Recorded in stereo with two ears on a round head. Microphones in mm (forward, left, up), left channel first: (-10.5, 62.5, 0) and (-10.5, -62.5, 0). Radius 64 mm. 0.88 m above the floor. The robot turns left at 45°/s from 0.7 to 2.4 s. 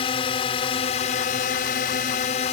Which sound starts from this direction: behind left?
A drone, at 0.0 s.